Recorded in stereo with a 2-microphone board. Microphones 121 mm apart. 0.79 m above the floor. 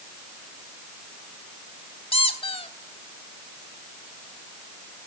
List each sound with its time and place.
2.1 s a squeak: 50° left (ahead or behind), 1.3 m